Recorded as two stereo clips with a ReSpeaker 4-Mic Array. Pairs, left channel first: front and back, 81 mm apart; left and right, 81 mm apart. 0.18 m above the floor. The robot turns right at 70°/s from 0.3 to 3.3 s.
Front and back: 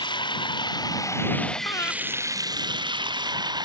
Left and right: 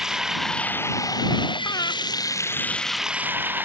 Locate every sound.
0.0 s running water: 5° right; by 3.6 s 155° right
1.6 s breathing: 45° left; by 1.9 s 65° left